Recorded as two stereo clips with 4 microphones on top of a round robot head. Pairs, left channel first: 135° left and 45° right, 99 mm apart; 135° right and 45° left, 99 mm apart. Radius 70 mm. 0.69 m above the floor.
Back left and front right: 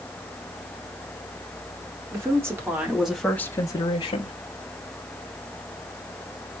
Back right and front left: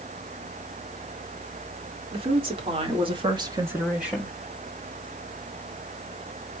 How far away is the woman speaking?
About 2.5 m.